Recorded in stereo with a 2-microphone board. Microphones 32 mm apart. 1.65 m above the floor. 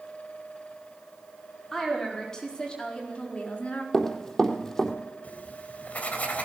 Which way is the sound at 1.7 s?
15° left (ahead or behind).